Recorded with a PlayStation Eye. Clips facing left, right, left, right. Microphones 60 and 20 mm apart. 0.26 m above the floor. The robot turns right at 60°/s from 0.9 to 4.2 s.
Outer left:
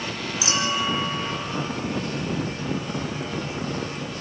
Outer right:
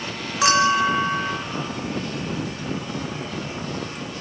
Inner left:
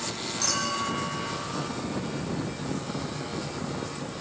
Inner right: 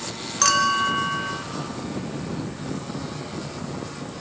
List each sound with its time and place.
0.4 s a clink: 100° right, 2.5 m; by 1.4 s 70° right, 2.5 m